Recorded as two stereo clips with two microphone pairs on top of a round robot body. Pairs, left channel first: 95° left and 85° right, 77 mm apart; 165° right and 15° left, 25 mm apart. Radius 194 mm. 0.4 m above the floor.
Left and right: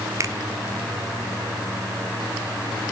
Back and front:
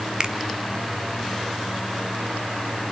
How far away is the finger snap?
About 1.7 m.